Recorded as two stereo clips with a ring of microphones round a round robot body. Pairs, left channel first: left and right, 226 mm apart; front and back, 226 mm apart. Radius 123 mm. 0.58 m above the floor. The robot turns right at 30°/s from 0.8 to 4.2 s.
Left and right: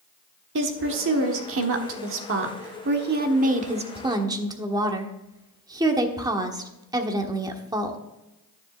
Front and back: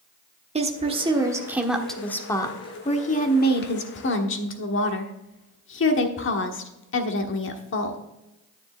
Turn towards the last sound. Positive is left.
turn(degrees=-20)